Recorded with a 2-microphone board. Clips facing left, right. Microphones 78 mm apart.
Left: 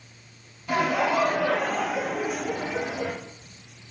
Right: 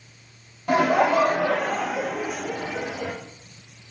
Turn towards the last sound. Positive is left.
turn(degrees=20)  # may be behind; listen again after turning